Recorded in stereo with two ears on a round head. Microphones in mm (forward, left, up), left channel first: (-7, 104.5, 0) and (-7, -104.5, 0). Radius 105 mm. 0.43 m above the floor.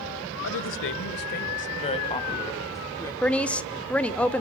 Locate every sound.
0.4 s a woman speaking: 65° left (ahead or behind), 1.6 m; by 3.1 s 10° left (ahead or behind), 3 m
3.2 s a woman speaking: 5° left (ahead or behind), 0.8 m